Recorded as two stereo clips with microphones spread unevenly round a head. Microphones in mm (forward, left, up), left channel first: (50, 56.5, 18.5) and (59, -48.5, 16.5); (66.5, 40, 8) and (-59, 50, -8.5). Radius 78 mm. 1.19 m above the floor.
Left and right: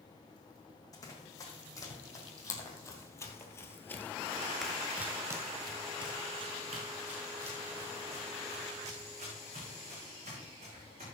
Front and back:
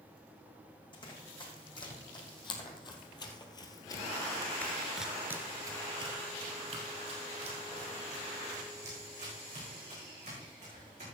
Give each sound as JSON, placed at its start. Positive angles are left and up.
{"t": 0.9, "sound": "running footsteps", "azimuth_deg": 40, "distance_m": 4.5}